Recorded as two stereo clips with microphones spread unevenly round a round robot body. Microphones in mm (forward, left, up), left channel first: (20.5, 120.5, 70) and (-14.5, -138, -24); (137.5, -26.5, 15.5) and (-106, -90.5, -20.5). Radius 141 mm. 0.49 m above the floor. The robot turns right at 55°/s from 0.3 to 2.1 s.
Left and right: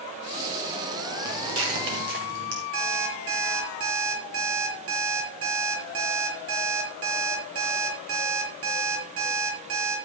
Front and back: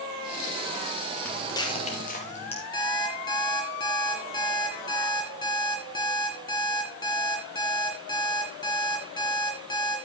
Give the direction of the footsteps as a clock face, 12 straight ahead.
2 o'clock.